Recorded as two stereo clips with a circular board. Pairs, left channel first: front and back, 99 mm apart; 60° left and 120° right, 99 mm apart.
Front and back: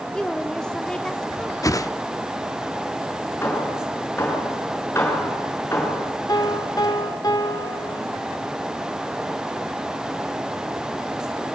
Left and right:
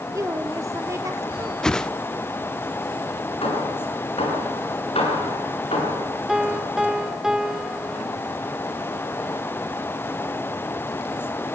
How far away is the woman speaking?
About 1.5 m.